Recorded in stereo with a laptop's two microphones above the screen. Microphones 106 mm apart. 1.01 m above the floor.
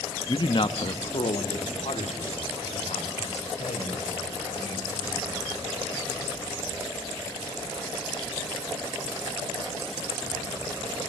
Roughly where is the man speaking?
Left.